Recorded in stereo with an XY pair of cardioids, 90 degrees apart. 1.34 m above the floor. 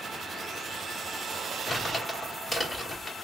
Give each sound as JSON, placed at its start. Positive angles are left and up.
{"t": 1.7, "sound": "crumpling", "azimuth_deg": 20, "distance_m": 1.8}